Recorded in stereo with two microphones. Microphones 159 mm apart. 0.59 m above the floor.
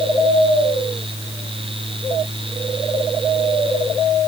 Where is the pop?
No pop in this recording.